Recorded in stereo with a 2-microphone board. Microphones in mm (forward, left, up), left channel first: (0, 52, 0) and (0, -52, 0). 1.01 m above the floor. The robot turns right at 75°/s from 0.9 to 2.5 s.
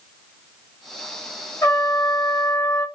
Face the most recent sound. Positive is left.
turn(degrees=110)